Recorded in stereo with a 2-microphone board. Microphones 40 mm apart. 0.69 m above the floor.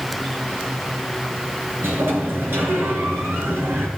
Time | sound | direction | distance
1.8 | a sliding door | 85° right | 3.5 m